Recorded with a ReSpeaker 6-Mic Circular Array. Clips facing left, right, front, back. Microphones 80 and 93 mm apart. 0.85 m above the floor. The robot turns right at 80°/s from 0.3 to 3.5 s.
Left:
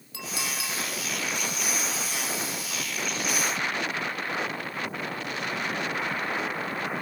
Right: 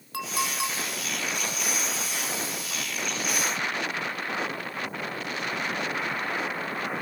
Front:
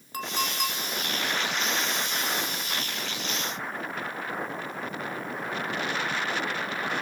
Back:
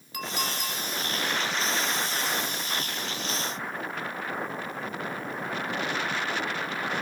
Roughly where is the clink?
Ahead right.